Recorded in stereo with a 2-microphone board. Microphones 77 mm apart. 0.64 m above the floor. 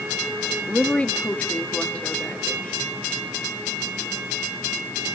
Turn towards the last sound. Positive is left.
turn(degrees=15)  # may be behind; listen again after turning